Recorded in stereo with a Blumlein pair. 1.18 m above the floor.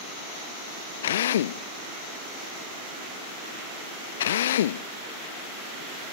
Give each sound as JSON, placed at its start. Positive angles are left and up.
{"t": 1.0, "sound": "a drill", "azimuth_deg": 60}